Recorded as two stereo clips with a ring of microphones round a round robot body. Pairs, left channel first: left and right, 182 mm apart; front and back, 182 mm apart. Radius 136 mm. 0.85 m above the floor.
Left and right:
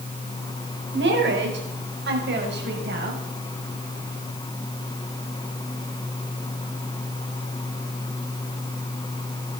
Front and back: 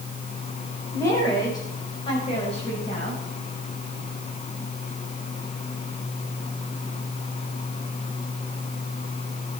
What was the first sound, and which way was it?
A woman speaking, 80° right.